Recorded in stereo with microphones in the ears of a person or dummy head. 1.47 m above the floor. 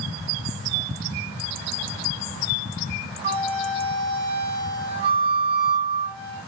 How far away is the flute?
About 3.5 m.